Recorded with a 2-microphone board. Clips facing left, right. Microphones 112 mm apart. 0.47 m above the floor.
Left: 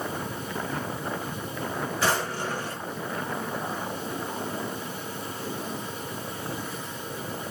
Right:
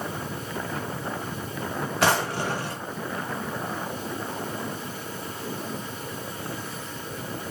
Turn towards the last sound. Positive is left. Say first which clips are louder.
# right 5 dB
turn(degrees=-70)  # may be behind; listen again after turning